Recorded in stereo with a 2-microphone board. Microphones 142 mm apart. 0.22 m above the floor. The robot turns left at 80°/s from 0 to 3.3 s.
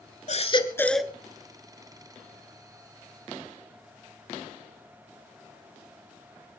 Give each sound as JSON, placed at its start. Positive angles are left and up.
{"t": 0.3, "sound": "a baby crying", "azimuth_deg": 55, "distance_m": 1.3}